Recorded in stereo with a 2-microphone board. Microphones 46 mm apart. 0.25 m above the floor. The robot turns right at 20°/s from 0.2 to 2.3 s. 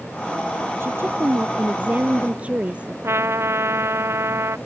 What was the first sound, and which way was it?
A woman speaking, 60° right (ahead or behind).